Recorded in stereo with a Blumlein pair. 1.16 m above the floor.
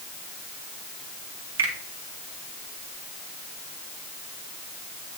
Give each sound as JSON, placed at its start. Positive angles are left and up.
{"t": 1.6, "sound": "a finger snap", "azimuth_deg": -60, "distance_m": 1.9}